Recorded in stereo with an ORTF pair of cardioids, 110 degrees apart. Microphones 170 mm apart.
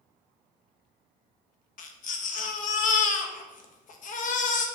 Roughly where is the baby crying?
Ahead left.